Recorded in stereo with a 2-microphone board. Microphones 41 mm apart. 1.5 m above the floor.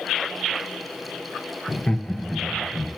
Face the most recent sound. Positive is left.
turn(degrees=5)  # may be behind; listen again after turning